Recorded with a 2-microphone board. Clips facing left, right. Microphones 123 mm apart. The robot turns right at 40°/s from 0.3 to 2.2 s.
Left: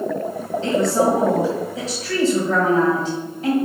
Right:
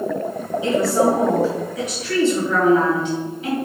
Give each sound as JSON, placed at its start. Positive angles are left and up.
{"t": 0.6, "sound": "a woman speaking", "azimuth_deg": -15, "distance_m": 2.0}